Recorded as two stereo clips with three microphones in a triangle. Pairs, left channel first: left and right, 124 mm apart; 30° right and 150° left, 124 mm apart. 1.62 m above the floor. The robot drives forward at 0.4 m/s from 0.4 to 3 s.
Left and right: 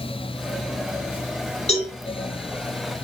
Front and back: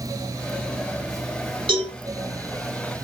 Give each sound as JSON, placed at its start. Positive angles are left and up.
{"t": 1.7, "sound": "a cowbell", "azimuth_deg": 105, "distance_m": 3.0}